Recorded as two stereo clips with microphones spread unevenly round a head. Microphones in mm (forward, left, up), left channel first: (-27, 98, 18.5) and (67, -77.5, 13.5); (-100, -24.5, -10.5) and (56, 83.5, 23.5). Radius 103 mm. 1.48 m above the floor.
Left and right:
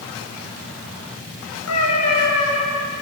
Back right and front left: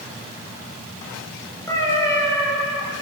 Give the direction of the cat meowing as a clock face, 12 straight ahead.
7 o'clock.